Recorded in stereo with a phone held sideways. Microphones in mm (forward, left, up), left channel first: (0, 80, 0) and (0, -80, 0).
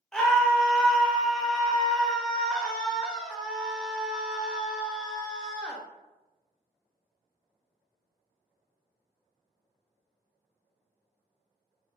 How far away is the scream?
About 0.7 m.